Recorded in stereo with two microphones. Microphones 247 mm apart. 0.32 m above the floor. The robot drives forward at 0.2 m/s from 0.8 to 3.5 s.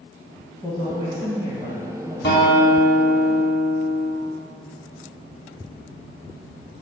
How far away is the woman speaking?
About 1.8 m.